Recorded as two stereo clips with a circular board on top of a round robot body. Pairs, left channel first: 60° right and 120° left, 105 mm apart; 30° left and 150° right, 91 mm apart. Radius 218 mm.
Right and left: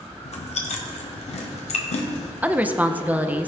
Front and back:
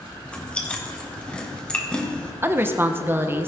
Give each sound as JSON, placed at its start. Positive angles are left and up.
{"t": 0.2, "sound": "chewing", "azimuth_deg": -50, "distance_m": 1.1}
{"t": 2.4, "sound": "a woman speaking", "azimuth_deg": 180, "distance_m": 1.0}